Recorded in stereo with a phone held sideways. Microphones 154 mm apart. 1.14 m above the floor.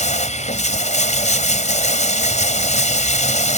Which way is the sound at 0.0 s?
50° left (ahead or behind).